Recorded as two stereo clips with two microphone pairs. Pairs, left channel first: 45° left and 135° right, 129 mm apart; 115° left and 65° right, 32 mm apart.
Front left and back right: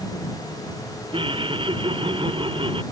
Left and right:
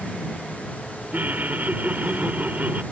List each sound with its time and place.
1.1 s laughter: 90° right